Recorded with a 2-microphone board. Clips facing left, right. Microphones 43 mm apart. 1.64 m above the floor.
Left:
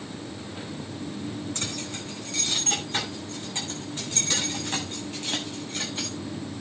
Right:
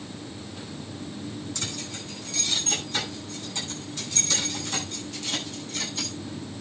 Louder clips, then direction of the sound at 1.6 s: Left 2 dB; 40° left (ahead or behind).